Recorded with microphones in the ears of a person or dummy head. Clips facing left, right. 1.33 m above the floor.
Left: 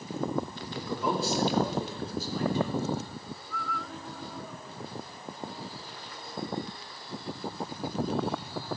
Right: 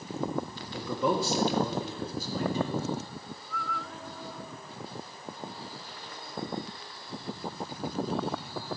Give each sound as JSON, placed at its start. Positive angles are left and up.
{"t": 0.7, "sound": "a man speaking", "side_deg": -75, "distance_m": 1.6}